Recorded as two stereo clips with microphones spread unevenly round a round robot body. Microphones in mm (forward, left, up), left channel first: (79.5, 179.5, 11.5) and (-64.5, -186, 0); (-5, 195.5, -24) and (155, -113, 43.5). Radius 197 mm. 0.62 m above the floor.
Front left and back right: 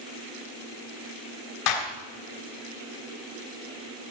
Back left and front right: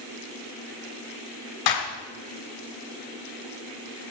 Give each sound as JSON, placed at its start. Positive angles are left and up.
{"t": 1.7, "sound": "a clap", "azimuth_deg": 105, "distance_m": 3.5}